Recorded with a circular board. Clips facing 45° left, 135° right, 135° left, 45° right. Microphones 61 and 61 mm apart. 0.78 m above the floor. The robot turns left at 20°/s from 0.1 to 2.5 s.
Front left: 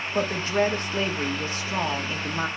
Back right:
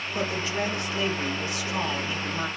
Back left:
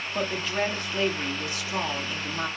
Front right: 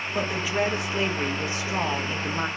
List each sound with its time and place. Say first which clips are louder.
0.1 s a woman speaking: front left 5 dB, front right 2 dB; 35° left, 1.0 m; by 2.5 s 10° right, 1.0 m